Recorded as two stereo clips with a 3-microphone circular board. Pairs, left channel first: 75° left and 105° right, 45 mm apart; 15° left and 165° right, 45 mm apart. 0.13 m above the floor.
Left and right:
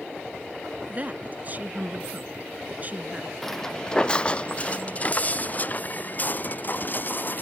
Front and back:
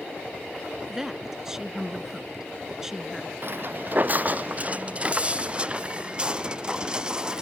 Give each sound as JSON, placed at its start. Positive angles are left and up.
{"t": 0.9, "sound": "a woman speaking", "azimuth_deg": -95}
{"t": 3.4, "sound": "footsteps", "azimuth_deg": 160}